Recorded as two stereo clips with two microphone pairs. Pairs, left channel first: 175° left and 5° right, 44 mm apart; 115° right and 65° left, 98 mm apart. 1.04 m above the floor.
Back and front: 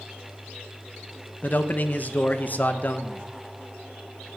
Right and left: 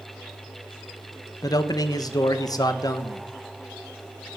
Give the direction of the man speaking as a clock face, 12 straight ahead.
5 o'clock.